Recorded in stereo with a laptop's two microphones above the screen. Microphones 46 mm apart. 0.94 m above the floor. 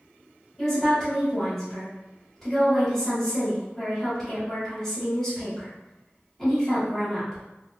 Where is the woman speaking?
5° left (ahead or behind), 2.0 m.